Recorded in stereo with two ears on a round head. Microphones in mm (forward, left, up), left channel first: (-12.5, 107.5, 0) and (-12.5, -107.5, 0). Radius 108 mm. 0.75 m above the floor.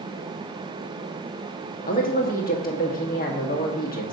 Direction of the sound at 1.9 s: 40° left (ahead or behind).